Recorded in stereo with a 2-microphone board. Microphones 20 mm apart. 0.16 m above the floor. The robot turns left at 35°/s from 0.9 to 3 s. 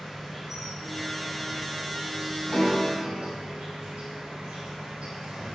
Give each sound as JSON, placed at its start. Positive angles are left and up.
{"t": 0.0, "sound": "an insect", "azimuth_deg": -10, "distance_m": 1.1}
{"t": 2.5, "sound": "a piano", "side_deg": 60, "distance_m": 1.1}